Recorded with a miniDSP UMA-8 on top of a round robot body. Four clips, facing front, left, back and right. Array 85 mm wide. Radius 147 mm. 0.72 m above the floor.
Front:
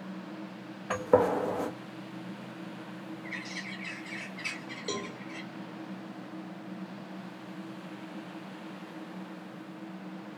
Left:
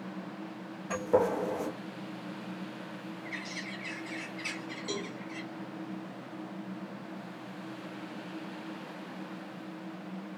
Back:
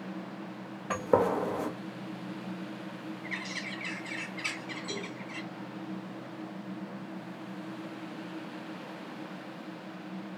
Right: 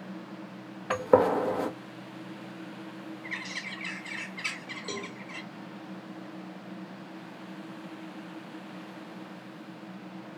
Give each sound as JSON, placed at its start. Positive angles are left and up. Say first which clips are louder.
{"t": 0.9, "sound": "a gunshot", "louder": "right 5 dB, front 2 dB", "azimuth_deg": -90, "distance_m": 1.3}
{"t": 3.2, "sound": "a bird", "louder": "right 1 dB, back 2 dB", "azimuth_deg": -120, "distance_m": 2.0}
{"t": 4.9, "sound": "a cowbell", "louder": "left 1 dB, front 6 dB", "azimuth_deg": -15, "distance_m": 1.7}